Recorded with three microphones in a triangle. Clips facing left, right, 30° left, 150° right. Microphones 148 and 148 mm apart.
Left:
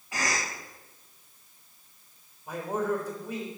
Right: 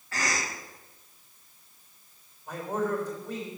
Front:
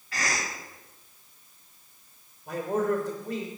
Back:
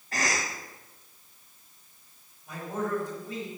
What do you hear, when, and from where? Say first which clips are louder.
0.1 s a cough: even, back 1 dB; 165° left, 1.9 m
2.5 s a man speaking: even, front 5 dB; 10° left, 3 m